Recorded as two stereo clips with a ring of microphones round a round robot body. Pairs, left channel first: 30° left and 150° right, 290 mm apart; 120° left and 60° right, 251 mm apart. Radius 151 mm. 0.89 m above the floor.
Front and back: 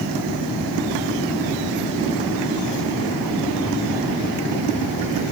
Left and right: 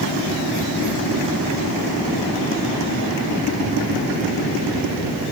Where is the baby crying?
No baby crying in this recording.